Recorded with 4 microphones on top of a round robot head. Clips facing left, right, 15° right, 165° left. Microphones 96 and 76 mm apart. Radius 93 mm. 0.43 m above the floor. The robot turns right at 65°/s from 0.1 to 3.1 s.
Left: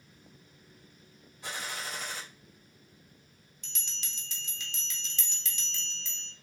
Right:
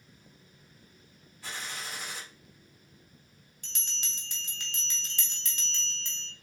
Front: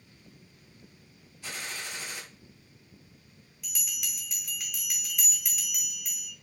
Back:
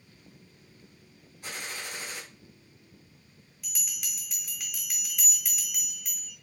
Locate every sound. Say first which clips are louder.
1.4 s a gunshot: left 2 dB, even; 155° left, 1.7 m; by 2.2 s 155° right, 1.7 m
3.6 s a bell: right 3 dB, front 2 dB; 105° right, 1.1 m